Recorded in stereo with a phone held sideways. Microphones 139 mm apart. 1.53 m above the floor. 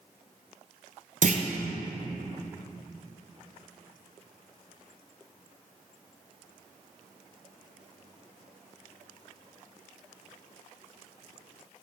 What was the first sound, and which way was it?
A clunk, 60° right (ahead or behind).